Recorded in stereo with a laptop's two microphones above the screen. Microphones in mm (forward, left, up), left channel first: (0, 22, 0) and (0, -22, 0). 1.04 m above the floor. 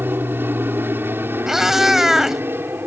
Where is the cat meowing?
5° right (ahead or behind).